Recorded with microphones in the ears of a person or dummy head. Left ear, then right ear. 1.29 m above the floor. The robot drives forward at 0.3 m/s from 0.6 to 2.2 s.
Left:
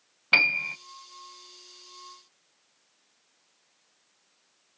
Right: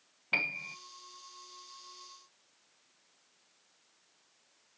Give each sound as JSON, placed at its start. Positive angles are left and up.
{"t": 0.3, "sound": "a piano", "side_deg": 40, "distance_m": 0.6}